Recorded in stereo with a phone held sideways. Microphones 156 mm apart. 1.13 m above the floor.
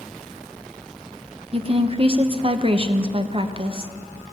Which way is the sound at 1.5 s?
40° right (ahead or behind).